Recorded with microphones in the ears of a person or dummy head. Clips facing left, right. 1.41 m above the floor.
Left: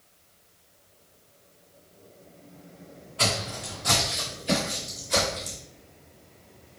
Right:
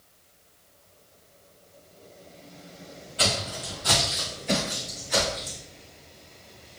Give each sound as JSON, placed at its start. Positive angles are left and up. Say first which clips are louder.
{"t": 3.2, "sound": "footsteps", "louder": "even", "side_deg": -15, "distance_m": 1.4}